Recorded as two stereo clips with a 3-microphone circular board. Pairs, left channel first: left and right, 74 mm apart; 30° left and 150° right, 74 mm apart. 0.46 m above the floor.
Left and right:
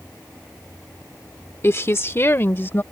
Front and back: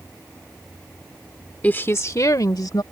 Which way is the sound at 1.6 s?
80° left.